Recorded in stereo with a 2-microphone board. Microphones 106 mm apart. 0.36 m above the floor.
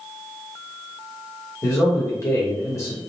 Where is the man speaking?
30° left (ahead or behind), 0.9 m.